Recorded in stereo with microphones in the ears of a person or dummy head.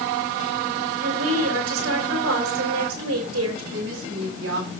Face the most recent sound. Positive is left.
turn(degrees=-65)  # may be behind; listen again after turning